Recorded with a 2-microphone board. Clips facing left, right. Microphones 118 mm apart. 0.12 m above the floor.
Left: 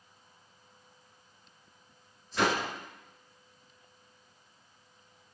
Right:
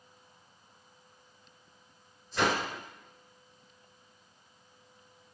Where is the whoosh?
Centre (ahead or behind), 1.9 m.